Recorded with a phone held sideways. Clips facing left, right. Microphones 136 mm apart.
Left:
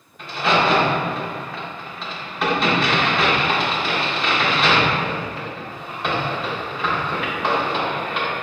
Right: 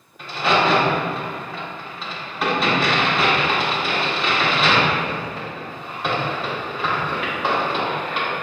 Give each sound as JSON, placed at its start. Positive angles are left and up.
{"t": 0.2, "sound": "a crack", "side_deg": 0, "distance_m": 0.8}